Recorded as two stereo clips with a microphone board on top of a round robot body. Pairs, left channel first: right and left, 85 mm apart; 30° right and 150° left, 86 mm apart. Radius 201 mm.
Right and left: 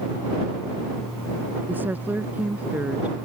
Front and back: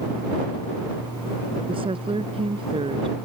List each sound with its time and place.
1.7 s a woman speaking: 160° left; by 3.2 s 165° left